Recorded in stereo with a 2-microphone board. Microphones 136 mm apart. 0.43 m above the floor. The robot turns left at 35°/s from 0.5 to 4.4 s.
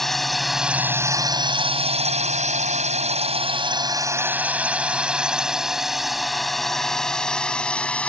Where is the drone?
Centre (ahead or behind); by 8.1 s 10° left (ahead or behind).